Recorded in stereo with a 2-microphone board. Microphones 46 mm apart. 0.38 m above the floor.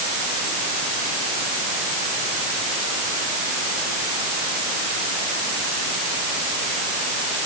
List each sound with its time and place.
Only background noise.